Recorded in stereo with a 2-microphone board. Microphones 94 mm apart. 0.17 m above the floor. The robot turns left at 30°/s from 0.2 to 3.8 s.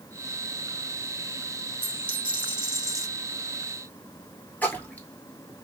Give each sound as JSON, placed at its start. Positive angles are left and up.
{"t": 1.8, "sound": "a dropped coin", "azimuth_deg": -100, "distance_m": 2.0}
{"t": 4.6, "sound": "a splash", "side_deg": 15, "distance_m": 1.3}